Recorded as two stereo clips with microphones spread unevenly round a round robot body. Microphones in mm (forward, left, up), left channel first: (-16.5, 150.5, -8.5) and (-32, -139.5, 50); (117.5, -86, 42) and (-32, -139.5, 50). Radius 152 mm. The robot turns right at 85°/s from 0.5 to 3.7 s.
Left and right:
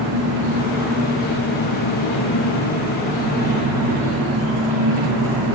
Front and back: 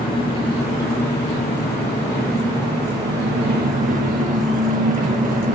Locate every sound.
0.0 s an engine running: 40° right, 8 m; by 5.5 s 125° right, 8 m